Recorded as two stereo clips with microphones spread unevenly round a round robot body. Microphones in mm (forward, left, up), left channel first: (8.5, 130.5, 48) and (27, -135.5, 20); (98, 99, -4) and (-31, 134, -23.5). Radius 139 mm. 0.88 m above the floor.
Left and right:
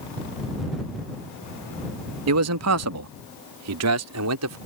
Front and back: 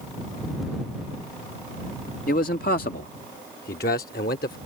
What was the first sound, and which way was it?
A man speaking, 65° right.